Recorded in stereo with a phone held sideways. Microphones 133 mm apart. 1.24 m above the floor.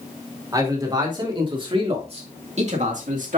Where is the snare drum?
No snare drum in this recording.